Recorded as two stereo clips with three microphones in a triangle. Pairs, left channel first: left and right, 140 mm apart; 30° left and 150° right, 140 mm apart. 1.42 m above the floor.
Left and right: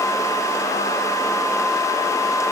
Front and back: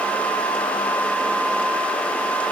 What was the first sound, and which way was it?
Only background noise.